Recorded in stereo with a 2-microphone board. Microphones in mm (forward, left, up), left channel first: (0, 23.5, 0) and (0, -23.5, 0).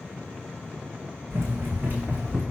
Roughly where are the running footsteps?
Right.